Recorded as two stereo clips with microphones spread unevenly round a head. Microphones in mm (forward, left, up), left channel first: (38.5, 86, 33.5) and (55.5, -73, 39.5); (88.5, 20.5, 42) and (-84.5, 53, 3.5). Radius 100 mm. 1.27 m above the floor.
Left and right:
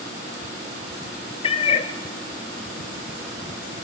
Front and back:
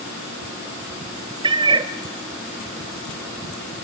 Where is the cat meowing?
105° left, 0.7 m.